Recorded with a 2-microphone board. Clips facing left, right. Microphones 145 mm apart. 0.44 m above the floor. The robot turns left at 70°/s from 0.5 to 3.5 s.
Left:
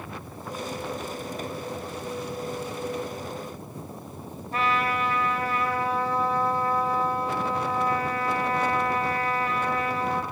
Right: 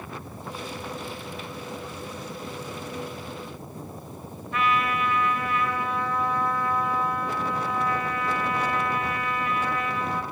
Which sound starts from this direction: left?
A trumpet, at 4.5 s.